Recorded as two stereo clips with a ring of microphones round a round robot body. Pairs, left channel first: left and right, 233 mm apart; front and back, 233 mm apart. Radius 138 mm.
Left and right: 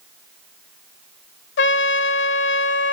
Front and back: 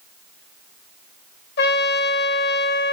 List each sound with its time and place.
1.6 s a trumpet: 55° left, 0.6 m